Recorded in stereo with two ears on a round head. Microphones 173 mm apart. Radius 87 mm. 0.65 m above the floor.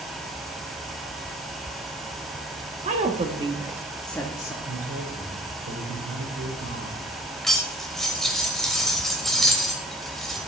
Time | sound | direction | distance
2.8 | a woman speaking | 35° right (ahead or behind) | 1.3 m
4.7 | a man speaking | 70° right (ahead or behind) | 2.5 m
7.4 | cutlery clinking | centre (ahead or behind) | 1.4 m